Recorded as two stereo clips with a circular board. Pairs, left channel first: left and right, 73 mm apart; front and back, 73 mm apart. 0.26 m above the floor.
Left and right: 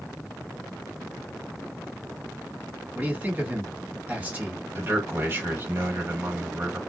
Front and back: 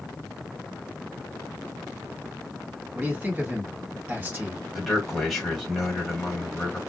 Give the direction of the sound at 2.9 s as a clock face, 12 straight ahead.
5 o'clock.